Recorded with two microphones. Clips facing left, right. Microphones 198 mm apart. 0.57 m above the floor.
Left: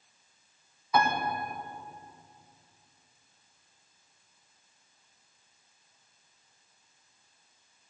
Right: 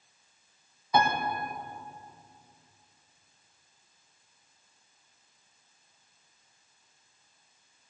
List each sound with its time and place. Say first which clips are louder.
0.9 s a piano: right 1 dB; 25° right (ahead or behind), 3 m